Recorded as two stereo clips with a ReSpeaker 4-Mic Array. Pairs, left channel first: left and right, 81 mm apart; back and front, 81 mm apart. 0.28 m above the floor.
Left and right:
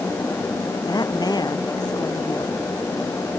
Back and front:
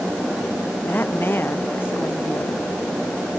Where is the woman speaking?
115° left; by 2.7 s 120° left.